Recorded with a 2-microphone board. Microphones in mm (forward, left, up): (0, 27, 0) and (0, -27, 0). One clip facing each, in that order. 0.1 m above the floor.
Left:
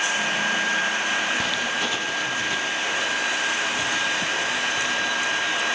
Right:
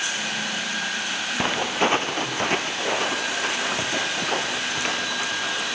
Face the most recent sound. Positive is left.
turn(degrees=-55)  # may be behind; listen again after turning